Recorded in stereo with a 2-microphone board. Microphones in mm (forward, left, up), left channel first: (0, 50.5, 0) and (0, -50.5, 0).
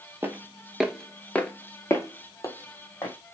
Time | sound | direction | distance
0.2 | footsteps | 20° right (ahead or behind) | 0.7 m